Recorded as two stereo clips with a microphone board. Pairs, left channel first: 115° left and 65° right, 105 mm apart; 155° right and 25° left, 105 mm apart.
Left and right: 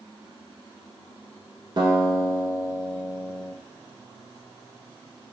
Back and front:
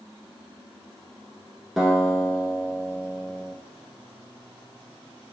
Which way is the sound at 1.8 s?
65° right.